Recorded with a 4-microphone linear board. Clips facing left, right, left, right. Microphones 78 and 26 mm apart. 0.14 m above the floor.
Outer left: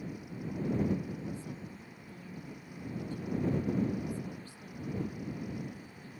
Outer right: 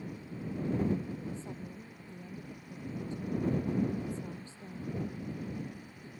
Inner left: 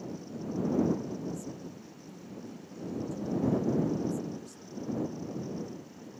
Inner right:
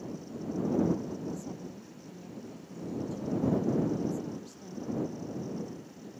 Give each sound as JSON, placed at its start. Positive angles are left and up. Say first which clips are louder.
{"t": 1.3, "sound": "a woman speaking", "louder": "even, even", "side_deg": -25}